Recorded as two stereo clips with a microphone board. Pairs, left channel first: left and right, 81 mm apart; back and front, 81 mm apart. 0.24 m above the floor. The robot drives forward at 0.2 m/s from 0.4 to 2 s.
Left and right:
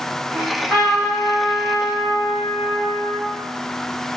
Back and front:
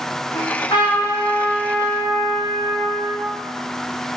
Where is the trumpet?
175° left, 6 m.